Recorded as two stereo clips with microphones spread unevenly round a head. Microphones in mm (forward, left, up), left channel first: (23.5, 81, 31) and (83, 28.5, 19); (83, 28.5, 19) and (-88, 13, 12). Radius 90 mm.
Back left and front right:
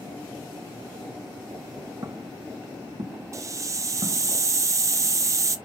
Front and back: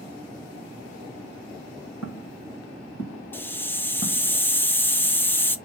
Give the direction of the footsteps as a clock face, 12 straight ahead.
12 o'clock.